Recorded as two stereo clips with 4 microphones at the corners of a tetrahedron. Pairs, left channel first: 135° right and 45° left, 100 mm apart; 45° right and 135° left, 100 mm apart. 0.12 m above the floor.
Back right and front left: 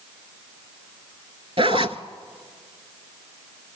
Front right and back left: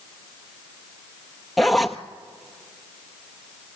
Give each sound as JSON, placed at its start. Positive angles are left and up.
{"t": 1.6, "sound": "a zipper", "azimuth_deg": 45, "distance_m": 0.7}